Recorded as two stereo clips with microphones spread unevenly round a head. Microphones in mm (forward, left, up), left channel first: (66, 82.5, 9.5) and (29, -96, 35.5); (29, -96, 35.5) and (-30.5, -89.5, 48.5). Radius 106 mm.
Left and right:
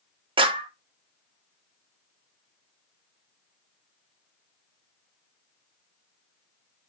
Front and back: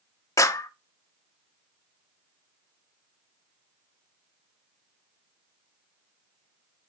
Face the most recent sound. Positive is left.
turn(degrees=-40)